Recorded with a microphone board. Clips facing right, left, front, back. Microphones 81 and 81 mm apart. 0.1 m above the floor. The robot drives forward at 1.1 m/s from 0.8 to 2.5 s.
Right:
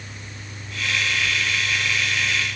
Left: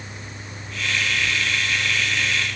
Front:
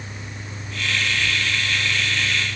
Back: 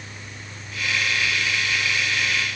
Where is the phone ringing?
I don't hear a phone ringing.